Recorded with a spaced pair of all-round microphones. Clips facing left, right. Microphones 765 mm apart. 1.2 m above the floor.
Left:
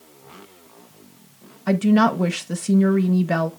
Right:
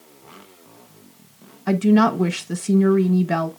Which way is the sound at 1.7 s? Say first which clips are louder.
Right 1 dB; 5° left (ahead or behind).